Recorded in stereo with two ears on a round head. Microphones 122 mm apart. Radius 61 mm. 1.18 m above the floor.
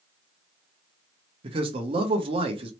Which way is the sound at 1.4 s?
40° right (ahead or behind).